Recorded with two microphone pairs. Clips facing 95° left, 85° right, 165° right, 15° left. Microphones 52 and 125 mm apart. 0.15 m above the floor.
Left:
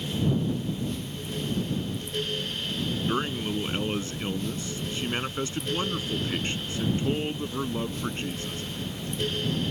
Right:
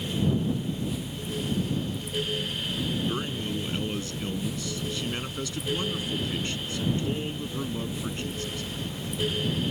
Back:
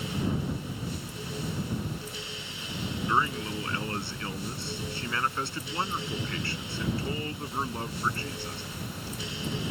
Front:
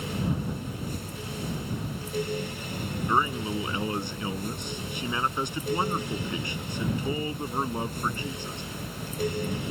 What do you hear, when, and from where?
3.1 s a man speaking: 75° left